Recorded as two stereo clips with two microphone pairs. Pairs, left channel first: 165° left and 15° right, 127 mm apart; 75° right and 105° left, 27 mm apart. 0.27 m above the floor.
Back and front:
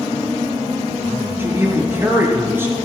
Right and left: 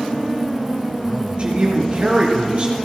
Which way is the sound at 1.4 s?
60° left.